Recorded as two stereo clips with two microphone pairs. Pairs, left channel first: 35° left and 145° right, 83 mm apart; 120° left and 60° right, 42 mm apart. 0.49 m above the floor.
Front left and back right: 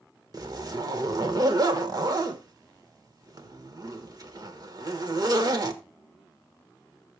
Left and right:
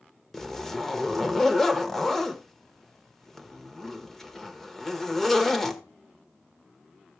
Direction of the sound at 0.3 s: 160° right.